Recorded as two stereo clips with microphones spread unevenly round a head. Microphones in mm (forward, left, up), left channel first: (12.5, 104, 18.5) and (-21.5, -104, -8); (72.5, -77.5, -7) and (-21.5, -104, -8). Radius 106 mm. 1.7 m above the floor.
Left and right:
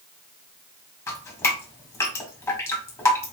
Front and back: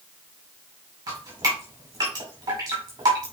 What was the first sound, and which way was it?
Dripping, 145° left.